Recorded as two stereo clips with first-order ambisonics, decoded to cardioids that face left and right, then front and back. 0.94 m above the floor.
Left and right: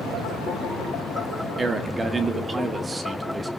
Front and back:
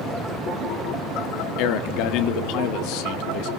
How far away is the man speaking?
About 1.5 m.